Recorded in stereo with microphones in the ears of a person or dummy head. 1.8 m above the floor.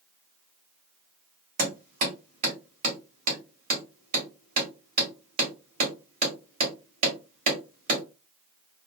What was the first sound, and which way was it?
Hammering, 40° right (ahead or behind).